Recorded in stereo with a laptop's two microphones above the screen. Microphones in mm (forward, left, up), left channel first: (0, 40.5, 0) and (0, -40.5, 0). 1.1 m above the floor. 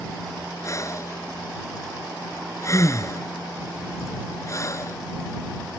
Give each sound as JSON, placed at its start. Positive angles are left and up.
{"t": 0.6, "sound": "breathing", "side_deg": 40}